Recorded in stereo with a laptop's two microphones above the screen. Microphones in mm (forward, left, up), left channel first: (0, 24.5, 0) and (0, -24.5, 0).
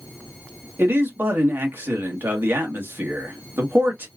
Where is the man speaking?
50° right (ahead or behind), 1.3 m.